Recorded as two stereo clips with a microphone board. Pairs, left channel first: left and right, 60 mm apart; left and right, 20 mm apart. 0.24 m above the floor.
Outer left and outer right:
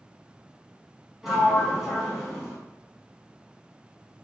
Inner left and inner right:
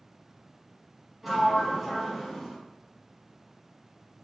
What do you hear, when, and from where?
1.2 s a sliding door: 5° right (ahead or behind), 0.8 m